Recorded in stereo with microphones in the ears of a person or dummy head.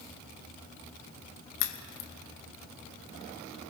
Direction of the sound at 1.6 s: 65° left (ahead or behind).